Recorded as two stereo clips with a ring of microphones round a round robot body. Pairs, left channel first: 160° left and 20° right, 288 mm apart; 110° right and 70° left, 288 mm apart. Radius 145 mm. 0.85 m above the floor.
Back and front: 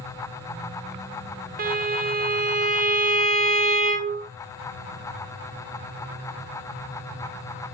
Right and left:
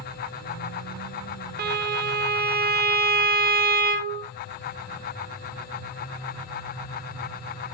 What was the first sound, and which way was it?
A violin, 25° left.